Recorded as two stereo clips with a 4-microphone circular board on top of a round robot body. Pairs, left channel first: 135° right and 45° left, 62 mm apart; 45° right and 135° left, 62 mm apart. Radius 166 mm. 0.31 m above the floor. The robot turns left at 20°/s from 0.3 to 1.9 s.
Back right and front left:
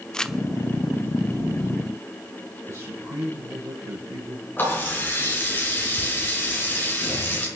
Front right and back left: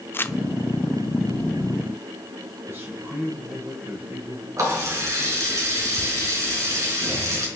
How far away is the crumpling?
About 0.9 m.